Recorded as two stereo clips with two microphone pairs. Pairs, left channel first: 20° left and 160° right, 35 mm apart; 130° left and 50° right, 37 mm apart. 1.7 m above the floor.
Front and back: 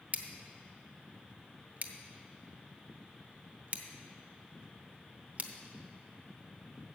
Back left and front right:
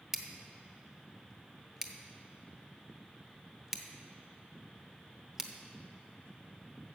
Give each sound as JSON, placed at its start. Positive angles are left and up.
{"t": 0.1, "sound": "scissors", "azimuth_deg": -130, "distance_m": 0.8}